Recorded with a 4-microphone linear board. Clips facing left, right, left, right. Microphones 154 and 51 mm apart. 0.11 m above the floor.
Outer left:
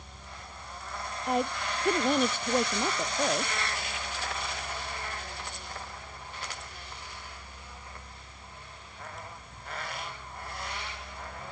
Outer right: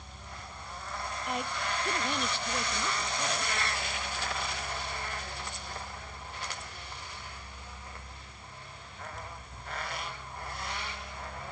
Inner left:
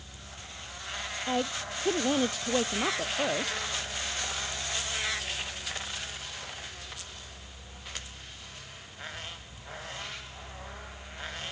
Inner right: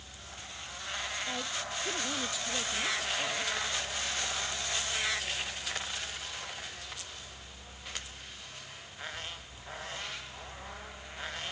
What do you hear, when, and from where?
1.3 s a woman speaking: 35° left (ahead or behind); by 3.7 s 55° left (ahead or behind)